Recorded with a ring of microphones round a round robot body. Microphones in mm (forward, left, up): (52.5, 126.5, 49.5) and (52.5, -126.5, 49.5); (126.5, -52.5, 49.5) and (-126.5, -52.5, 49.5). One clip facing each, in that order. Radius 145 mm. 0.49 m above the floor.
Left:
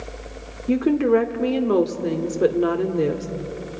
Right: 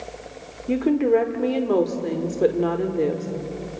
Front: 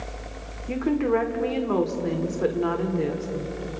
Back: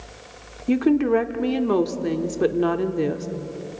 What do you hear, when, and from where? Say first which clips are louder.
0.7 s a woman speaking: left 1 dB, back 5 dB; 165° left, 1.4 m